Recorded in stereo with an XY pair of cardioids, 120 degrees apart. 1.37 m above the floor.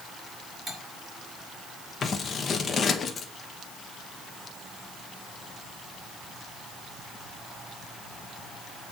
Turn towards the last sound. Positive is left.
turn(degrees=40)